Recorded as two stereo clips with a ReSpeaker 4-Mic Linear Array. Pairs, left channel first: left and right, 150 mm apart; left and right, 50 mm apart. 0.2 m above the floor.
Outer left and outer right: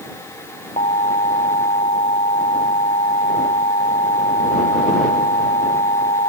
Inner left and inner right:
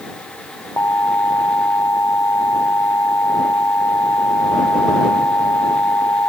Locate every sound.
0.8 s an alarm: 45° left (ahead or behind)